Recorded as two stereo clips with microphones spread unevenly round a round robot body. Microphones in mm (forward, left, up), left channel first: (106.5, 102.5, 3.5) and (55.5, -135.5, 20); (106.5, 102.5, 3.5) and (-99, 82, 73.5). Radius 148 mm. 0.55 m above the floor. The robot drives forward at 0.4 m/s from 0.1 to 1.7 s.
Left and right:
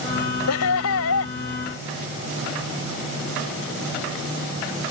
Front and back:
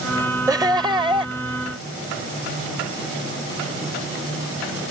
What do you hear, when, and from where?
0.5 s laughter: 105° left; by 1.3 s 115° left